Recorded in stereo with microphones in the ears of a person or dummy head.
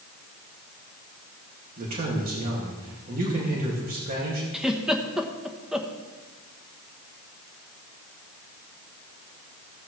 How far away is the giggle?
About 1.0 m.